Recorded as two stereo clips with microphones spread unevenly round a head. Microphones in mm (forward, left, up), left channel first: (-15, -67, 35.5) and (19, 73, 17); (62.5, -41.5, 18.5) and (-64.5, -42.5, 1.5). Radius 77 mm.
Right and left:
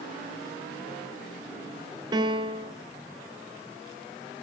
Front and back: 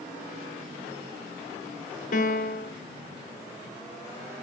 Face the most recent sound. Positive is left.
turn(degrees=10)